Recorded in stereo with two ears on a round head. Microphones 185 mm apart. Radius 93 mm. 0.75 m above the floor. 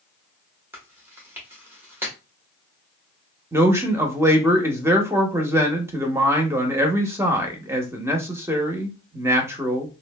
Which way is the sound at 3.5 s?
10° right (ahead or behind).